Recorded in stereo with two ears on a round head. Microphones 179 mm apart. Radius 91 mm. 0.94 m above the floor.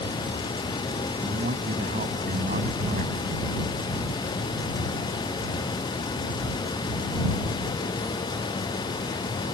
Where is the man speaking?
45° right (ahead or behind).